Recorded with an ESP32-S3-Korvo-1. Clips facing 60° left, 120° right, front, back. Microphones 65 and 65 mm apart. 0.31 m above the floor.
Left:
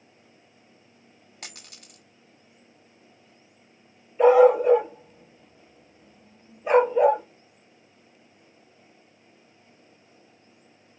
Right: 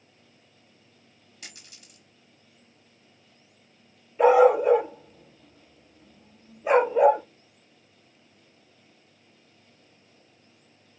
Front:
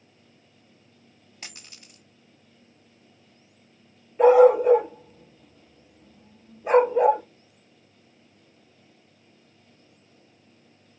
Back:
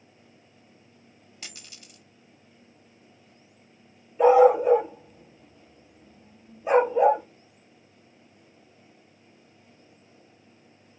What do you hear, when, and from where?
1.4 s a dropped coin: 50° left, 1.0 m
4.2 s a dog barking: 45° right, 2 m